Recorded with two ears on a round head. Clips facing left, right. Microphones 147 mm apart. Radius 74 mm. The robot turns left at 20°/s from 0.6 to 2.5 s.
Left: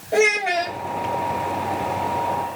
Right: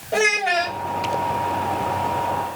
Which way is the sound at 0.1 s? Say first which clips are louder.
Left 2 dB; 10° left (ahead or behind).